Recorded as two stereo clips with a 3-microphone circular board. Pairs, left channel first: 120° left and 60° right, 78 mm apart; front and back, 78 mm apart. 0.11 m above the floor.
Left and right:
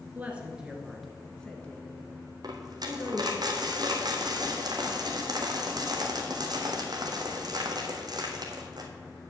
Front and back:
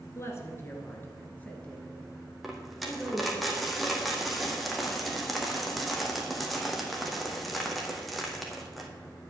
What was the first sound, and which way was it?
A woman speaking, 5° right.